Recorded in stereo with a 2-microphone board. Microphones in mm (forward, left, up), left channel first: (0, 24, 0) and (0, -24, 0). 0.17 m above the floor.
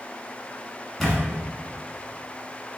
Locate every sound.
1.0 s a camera shutter: 5° left (ahead or behind), 1.3 m